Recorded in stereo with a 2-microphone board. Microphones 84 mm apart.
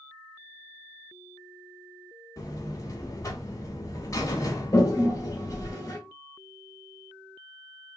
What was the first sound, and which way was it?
A buzzer, 40° left (ahead or behind).